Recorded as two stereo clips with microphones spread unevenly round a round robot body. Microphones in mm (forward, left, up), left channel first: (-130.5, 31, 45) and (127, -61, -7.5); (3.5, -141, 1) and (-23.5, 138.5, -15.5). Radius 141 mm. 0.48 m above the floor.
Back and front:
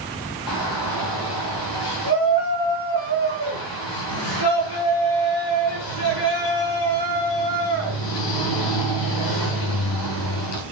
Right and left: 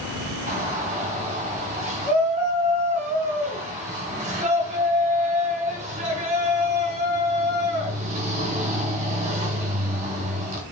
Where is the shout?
160° left, 3.5 m.